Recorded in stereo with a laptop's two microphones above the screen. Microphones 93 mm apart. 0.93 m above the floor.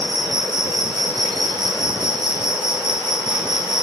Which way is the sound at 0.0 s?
55° right (ahead or behind).